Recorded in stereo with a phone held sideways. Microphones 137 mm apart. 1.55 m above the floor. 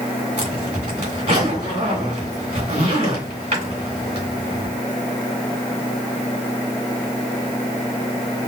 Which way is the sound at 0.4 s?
65° right (ahead or behind).